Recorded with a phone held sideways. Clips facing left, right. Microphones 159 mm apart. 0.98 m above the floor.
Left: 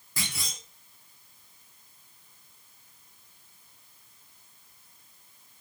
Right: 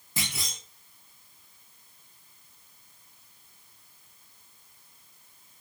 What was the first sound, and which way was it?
A clunk, 20° right (ahead or behind).